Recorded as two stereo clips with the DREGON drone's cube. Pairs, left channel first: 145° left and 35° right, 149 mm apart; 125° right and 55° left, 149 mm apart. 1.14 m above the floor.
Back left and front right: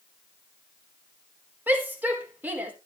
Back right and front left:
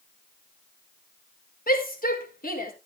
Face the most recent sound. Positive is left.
turn(degrees=-110)